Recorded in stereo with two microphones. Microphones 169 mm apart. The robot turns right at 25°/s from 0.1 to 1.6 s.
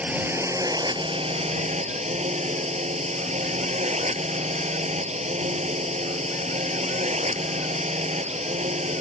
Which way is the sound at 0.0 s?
170° right.